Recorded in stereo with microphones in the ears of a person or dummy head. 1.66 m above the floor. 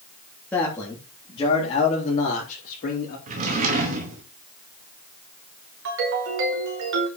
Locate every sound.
0.5 s a man speaking: 10° left (ahead or behind), 3.5 m; by 3.2 s 50° left (ahead or behind), 4.5 m
3.3 s a drawer: 40° right (ahead or behind), 2.5 m
5.8 s a ringtone: 65° right (ahead or behind), 3.5 m